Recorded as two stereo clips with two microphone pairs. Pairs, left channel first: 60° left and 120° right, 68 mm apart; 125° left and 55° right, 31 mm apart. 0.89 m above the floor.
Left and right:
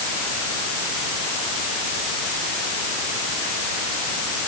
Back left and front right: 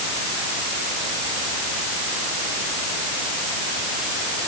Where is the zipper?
No zipper in this recording.